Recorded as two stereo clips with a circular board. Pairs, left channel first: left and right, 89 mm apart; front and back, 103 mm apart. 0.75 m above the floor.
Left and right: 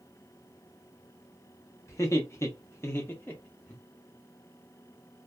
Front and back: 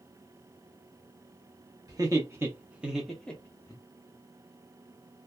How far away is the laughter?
About 1.0 m.